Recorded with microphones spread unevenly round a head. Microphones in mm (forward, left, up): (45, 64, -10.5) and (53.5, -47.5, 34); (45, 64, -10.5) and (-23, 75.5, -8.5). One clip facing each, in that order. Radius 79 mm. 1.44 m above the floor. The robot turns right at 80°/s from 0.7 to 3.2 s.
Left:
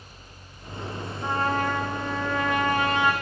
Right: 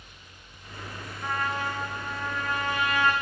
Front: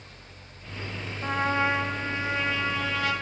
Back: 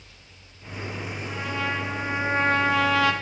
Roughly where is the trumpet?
Ahead left.